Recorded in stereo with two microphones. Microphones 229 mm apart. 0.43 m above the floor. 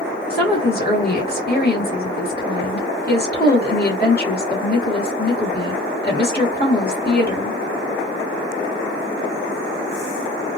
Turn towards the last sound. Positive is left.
turn(degrees=45)  # may be behind; listen again after turning